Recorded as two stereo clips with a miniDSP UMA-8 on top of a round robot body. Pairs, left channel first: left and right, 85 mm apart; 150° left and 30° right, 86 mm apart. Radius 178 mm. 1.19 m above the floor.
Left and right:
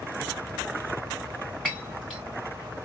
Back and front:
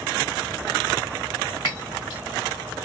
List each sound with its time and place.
1.6 s breaking glass: 175° right, 1.9 m